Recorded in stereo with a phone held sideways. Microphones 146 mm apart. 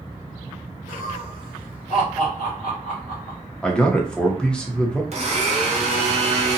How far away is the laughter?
About 1.3 m.